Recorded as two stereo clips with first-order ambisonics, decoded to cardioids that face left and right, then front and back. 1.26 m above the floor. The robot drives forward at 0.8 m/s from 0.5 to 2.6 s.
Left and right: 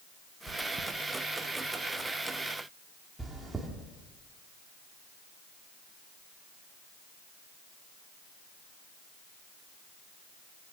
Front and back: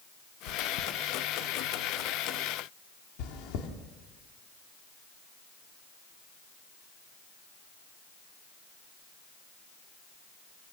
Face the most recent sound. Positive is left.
turn(degrees=-10)